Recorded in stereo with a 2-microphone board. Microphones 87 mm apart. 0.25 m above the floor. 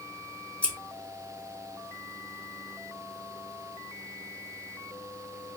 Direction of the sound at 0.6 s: 15° left (ahead or behind).